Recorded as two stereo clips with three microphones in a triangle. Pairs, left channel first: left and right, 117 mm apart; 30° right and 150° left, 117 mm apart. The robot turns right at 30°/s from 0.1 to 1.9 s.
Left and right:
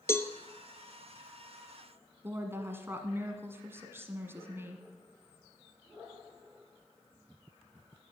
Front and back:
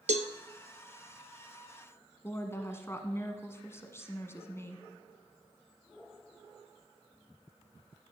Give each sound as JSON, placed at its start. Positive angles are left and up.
{"t": 0.1, "sound": "a cowbell", "azimuth_deg": 155, "distance_m": 0.6}
{"t": 2.2, "sound": "a woman speaking", "azimuth_deg": -55, "distance_m": 1.2}